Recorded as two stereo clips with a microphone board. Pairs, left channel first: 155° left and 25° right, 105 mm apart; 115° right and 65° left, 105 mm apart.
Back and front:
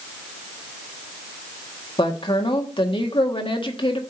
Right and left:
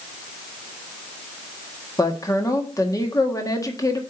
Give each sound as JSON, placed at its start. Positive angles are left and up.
{"t": 2.0, "sound": "a woman speaking", "azimuth_deg": -170, "distance_m": 1.5}